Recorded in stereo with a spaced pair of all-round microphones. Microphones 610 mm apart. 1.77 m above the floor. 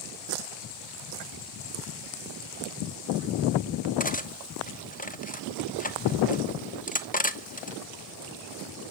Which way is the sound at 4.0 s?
15° left (ahead or behind).